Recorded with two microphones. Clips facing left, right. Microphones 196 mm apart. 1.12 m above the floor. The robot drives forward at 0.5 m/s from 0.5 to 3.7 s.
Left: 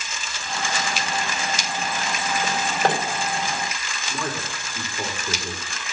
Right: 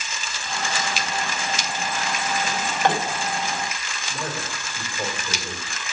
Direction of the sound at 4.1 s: 70° left (ahead or behind).